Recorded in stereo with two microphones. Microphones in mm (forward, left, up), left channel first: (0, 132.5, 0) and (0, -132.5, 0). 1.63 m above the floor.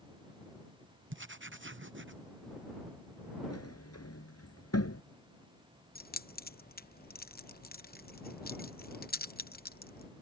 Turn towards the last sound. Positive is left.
turn(degrees=35)  # may be behind; listen again after turning